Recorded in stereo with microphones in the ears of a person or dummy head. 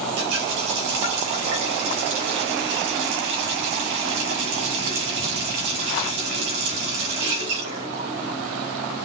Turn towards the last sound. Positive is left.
turn(degrees=-75)  # may be behind; listen again after turning